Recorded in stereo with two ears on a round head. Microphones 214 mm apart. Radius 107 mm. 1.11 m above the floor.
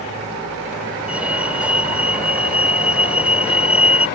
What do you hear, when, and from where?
1.1 s a fire alarm: 5° right (ahead or behind)